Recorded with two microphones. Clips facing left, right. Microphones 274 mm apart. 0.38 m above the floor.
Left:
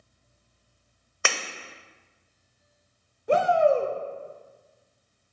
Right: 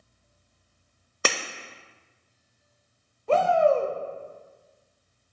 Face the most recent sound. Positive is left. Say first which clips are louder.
# even
turn(degrees=15)  # may be behind; listen again after turning